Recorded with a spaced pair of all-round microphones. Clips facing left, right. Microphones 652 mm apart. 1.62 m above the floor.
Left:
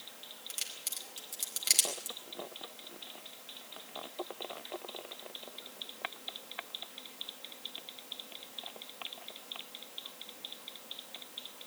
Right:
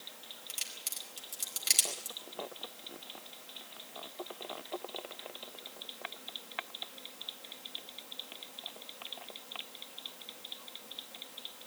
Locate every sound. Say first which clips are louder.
0.5 s a crack: even; 25° right (ahead or behind), 4.5 m